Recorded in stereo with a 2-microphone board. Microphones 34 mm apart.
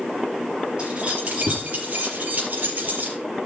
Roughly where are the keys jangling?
Right.